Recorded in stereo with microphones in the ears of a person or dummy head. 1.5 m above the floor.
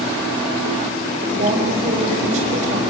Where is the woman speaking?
40° right (ahead or behind), 6.5 m.